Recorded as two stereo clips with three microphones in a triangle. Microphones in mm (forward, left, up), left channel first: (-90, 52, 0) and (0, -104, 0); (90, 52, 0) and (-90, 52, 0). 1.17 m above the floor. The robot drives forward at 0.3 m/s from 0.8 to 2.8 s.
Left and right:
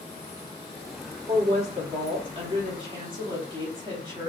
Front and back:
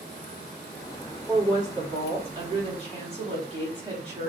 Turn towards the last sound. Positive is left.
turn(degrees=-125)